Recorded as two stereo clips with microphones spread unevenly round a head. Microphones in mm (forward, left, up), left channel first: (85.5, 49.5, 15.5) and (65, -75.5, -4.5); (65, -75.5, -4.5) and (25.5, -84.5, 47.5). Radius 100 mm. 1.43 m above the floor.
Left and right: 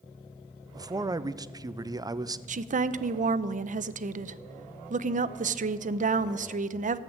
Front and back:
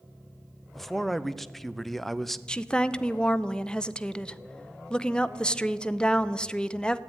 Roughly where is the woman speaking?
Right.